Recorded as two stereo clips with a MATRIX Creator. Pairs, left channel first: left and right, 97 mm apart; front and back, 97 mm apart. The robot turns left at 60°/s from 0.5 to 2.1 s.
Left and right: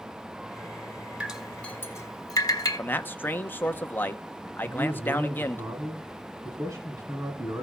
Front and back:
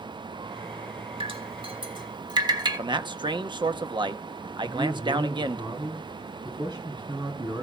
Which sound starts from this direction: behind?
Dripping, at 1.2 s.